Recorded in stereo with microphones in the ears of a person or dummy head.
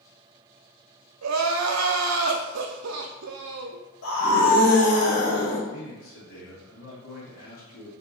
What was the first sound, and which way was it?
Crying, 75° right (ahead or behind).